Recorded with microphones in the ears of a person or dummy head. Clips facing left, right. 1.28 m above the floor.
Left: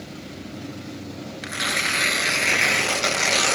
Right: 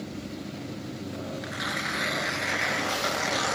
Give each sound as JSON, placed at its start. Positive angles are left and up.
{"t": 1.4, "sound": "tearing paper", "side_deg": 50}